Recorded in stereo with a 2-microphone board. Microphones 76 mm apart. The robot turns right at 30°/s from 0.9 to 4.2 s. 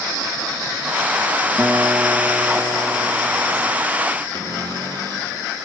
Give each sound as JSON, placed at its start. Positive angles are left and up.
{"t": 1.6, "sound": "a guitar", "azimuth_deg": -160, "distance_m": 1.0}
{"t": 4.3, "sound": "a cupboard door", "side_deg": -65, "distance_m": 3.0}